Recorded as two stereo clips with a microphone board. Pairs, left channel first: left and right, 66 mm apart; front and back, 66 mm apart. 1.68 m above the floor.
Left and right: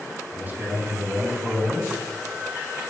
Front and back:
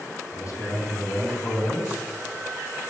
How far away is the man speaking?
About 5 m.